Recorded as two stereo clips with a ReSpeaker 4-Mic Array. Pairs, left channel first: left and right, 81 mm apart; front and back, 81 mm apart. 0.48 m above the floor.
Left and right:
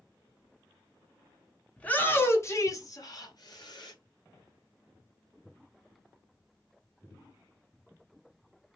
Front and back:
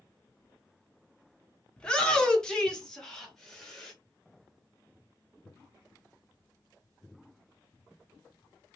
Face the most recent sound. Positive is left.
turn(degrees=80)